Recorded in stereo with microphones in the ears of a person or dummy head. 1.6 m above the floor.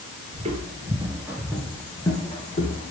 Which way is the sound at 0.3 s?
30° right (ahead or behind).